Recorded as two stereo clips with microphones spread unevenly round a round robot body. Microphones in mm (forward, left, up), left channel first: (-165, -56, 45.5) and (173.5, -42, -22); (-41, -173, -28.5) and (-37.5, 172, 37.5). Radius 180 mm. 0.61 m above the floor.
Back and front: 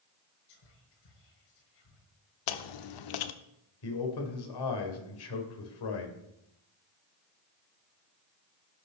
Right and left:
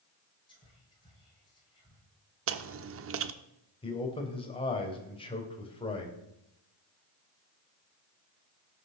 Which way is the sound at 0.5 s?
170° right.